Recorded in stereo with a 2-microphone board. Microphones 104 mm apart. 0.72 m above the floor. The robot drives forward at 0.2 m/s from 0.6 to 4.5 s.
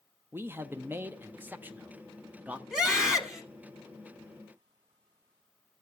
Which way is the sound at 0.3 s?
20° right (ahead or behind).